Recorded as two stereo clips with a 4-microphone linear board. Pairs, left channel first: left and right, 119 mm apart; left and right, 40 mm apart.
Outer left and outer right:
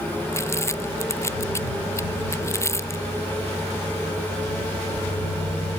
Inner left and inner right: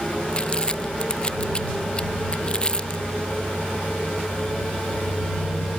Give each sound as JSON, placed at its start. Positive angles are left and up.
{"t": 0.3, "sound": "crumpling", "side_deg": 25}